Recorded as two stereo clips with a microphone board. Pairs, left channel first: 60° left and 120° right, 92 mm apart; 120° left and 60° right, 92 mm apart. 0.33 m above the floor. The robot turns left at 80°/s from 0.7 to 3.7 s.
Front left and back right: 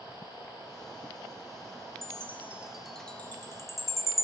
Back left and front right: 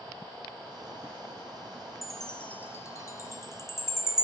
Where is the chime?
145° right, 1.3 m; by 4.2 s 80° left, 1.3 m.